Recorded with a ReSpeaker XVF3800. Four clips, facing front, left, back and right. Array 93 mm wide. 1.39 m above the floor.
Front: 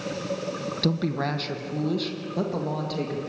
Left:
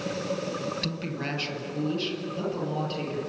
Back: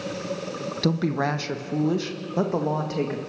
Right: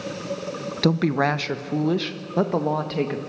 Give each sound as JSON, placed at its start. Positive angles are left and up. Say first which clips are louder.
{"t": 0.8, "sound": "a woman speaking", "louder": "right 12 dB, back 3 dB", "azimuth_deg": -100, "distance_m": 1.0}